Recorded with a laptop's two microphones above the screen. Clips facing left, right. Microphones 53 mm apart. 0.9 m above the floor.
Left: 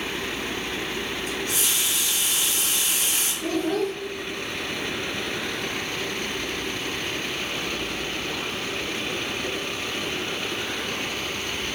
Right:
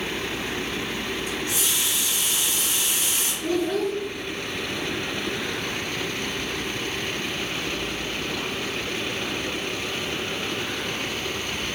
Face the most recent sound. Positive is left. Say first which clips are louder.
# right 1 dB
turn(degrees=45)  # may be behind; listen again after turning